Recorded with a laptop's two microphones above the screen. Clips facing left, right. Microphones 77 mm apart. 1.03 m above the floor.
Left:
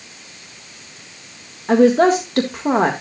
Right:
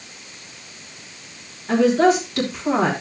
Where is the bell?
I don't hear a bell.